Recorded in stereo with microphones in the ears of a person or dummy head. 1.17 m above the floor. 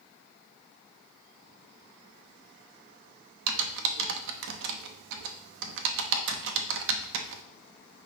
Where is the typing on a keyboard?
70° right (ahead or behind), 0.8 m.